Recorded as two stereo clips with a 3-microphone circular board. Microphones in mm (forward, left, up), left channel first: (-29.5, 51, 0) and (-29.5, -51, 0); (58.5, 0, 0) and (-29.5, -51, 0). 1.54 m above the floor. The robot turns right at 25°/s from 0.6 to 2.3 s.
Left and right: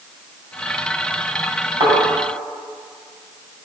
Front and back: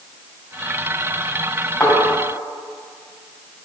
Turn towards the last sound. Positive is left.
turn(degrees=-35)